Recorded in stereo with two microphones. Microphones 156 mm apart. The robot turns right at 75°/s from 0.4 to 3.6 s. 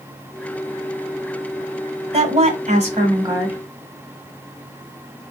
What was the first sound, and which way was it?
A woman speaking, 120° right.